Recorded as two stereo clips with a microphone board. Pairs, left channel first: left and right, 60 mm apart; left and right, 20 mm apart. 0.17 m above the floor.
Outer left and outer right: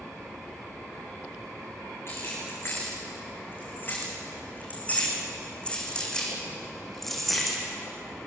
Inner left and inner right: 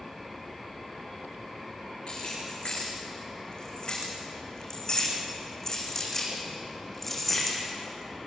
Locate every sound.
2.1 s keys jangling: 45° left (ahead or behind), 9.5 m; by 7.6 s centre (ahead or behind), 6.5 m